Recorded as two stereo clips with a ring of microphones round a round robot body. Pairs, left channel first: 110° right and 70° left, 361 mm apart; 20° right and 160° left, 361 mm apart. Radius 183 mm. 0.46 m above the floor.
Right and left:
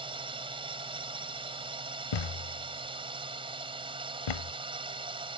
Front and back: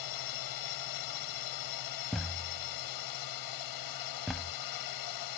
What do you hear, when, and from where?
0.0 s a drone: 5° right
2.1 s a thud: 115° right